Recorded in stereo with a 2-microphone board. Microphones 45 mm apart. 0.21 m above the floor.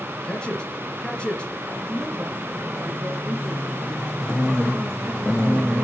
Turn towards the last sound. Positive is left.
turn(degrees=-55)  # may be behind; listen again after turning